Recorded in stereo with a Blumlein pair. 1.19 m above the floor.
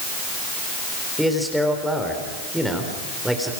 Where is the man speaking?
Straight ahead, 3.5 m.